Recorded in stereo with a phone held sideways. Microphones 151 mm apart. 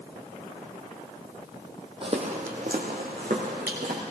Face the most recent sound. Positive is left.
turn(degrees=-75)  # may be behind; listen again after turning